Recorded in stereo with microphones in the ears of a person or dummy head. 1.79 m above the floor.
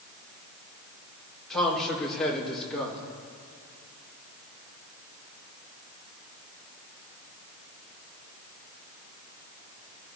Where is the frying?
No frying in this recording.